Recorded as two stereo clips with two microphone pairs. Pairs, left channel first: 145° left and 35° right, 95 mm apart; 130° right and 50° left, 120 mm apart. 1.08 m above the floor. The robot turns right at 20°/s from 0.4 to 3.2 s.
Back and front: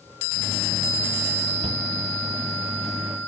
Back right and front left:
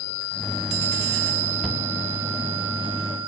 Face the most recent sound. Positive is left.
turn(degrees=0)